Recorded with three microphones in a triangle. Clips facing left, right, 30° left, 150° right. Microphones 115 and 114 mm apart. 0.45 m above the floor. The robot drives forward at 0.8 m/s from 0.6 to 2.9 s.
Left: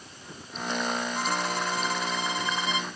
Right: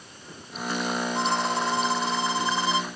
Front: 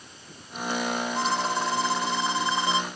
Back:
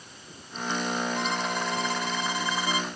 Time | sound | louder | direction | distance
1.1 | a violin | right 4 dB, front 3 dB | 30° right | ?